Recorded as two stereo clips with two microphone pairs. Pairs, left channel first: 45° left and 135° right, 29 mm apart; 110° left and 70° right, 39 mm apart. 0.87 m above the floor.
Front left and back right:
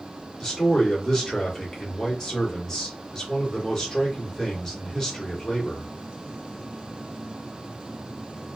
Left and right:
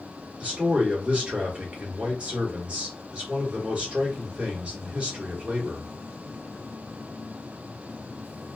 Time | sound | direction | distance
0.4 | a man speaking | 20° right | 1.4 m